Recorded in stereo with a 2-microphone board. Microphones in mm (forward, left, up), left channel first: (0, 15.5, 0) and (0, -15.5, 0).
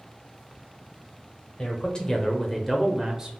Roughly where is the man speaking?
Left.